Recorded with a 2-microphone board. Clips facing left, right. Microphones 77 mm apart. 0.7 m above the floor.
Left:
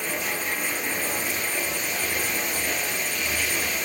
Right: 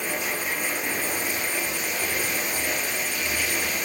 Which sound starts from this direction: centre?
Running water, at 0.0 s.